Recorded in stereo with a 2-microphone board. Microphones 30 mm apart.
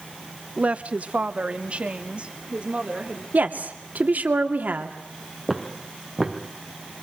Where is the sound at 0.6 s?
40° right (ahead or behind), 0.9 m; by 3.2 s 35° right (ahead or behind), 3.5 m.